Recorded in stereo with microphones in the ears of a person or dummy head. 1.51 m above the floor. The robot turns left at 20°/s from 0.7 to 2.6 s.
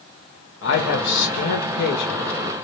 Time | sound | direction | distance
0.6 | a man speaking | 90° left | 0.7 m